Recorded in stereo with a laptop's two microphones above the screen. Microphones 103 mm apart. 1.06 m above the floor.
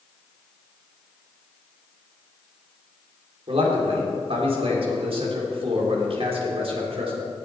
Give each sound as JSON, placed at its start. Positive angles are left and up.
{"t": 3.5, "sound": "a man speaking", "side_deg": -65, "distance_m": 3.0}